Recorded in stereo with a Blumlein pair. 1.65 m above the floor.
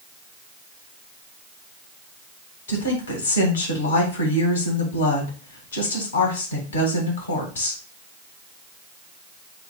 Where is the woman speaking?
70° left, 1.9 m.